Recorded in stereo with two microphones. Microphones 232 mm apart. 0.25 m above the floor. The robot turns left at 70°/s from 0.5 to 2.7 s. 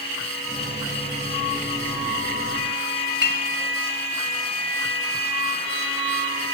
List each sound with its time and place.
3.2 s a clink: 55° right (ahead or behind), 1.2 m